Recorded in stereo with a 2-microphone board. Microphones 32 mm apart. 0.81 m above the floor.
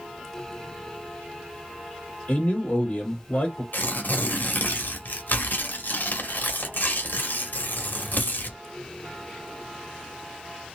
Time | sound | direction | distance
2.3 | a man speaking | 45° left (ahead or behind) | 3 m
3.7 | tearing paper | 70° left (ahead or behind) | 1.3 m